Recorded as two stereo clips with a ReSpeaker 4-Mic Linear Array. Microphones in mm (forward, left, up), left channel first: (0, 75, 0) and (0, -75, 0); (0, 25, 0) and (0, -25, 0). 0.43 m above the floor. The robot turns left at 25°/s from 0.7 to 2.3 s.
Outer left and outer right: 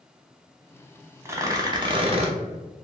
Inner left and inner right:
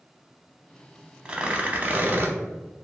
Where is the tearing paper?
20° right (ahead or behind), 0.6 m; by 2.3 s 45° right (ahead or behind), 0.6 m.